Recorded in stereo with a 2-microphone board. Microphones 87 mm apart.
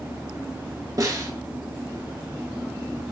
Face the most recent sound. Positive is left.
turn(degrees=-45)  # may be behind; listen again after turning